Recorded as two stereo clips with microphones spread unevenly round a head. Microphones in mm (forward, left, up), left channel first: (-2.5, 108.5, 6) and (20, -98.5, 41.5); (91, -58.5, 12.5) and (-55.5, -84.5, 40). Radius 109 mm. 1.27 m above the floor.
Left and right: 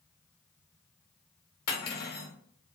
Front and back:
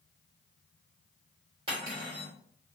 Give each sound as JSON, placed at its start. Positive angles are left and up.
{"t": 1.7, "sound": "cutlery clinking", "azimuth_deg": 140, "distance_m": 0.8}